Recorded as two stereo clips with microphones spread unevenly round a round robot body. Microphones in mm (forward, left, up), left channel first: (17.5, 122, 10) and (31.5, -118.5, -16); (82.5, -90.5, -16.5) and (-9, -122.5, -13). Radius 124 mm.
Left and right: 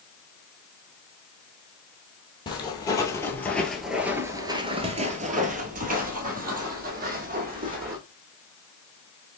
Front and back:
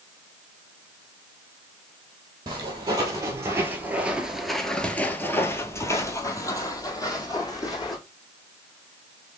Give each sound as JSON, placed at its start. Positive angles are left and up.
{"t": 2.5, "sound": "footsteps", "azimuth_deg": 160, "distance_m": 1.3}